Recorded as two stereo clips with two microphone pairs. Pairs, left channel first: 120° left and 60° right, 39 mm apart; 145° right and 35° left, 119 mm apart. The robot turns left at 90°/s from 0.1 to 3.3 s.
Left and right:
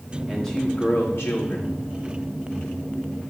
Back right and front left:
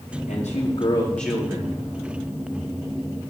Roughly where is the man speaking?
Behind right.